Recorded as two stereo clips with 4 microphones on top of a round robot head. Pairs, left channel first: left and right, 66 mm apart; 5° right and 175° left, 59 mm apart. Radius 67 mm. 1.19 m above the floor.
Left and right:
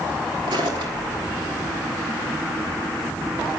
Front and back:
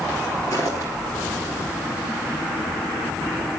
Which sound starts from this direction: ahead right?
Footsteps, at 0.5 s.